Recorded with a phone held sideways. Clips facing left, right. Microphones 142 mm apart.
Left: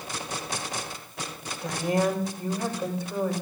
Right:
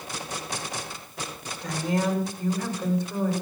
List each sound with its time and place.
1.6 s a woman speaking: 5° left (ahead or behind), 6.5 m